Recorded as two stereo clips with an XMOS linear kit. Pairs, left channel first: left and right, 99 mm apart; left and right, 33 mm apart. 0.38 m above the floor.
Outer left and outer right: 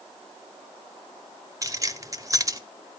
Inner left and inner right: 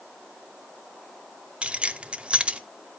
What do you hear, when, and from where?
1.6 s keys jangling: 35° right (ahead or behind), 0.8 m